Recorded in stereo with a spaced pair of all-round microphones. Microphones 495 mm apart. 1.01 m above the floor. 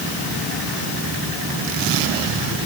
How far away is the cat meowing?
I don't hear a cat meowing.